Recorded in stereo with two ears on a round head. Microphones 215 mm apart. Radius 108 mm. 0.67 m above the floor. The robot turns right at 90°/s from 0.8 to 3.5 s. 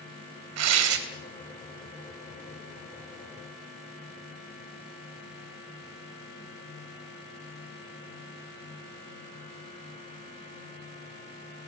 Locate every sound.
0.6 s tearing paper: 70° right (ahead or behind), 3 m; by 1.0 s 50° right (ahead or behind), 3 m